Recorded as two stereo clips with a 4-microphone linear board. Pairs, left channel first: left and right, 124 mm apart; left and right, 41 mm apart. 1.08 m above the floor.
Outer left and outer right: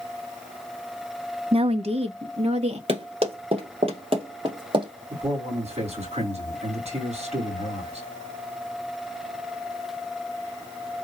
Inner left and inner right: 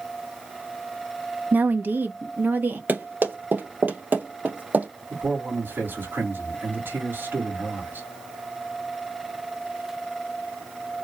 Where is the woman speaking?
50° right (ahead or behind), 0.5 m; by 2.8 s 55° right (ahead or behind), 1.3 m.